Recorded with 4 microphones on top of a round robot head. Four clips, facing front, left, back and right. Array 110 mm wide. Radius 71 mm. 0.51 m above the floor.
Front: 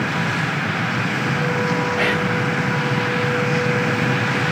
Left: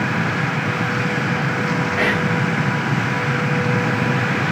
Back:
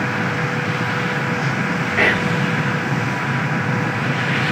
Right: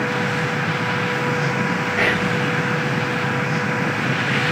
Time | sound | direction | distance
2.0 | whispering | 170° right | 1.0 m